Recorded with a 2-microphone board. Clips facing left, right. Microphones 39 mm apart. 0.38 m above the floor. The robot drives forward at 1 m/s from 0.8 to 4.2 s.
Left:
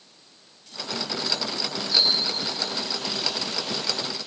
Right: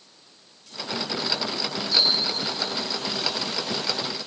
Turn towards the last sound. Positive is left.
turn(degrees=55)  # may be behind; listen again after turning